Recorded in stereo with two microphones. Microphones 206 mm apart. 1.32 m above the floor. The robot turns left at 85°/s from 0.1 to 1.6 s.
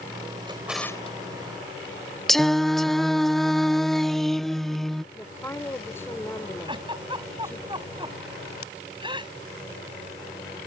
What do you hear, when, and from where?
0.5 s a drawer: 25° right (ahead or behind); by 1.2 s 35° left (ahead or behind)
2.3 s singing: centre (ahead or behind)
5.1 s a woman speaking: 10° left (ahead or behind)
6.7 s a giggle: 20° right (ahead or behind)